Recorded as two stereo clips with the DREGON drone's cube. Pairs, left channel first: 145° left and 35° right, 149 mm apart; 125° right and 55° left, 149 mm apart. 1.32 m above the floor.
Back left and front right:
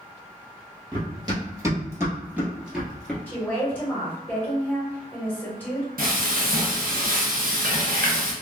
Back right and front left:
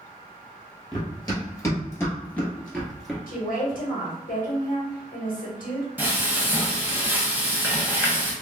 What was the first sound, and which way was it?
Running footsteps, 75° right.